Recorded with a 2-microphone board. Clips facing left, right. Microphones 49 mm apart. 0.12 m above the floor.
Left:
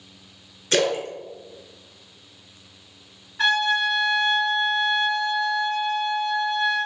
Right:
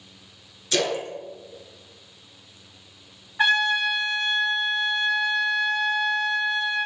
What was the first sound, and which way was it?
A splash, 40° left (ahead or behind).